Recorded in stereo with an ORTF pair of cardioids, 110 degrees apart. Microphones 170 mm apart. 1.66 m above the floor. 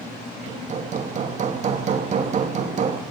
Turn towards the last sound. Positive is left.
turn(degrees=-45)